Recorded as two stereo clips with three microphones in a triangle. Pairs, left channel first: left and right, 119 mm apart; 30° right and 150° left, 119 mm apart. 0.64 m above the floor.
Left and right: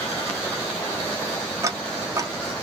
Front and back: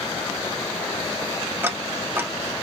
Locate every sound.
1.6 s ticking: 145° right, 0.6 m